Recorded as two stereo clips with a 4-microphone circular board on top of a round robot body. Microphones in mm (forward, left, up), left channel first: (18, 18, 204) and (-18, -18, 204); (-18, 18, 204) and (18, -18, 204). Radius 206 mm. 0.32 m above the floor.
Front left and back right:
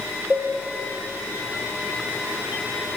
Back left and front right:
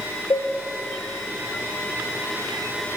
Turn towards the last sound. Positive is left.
turn(degrees=140)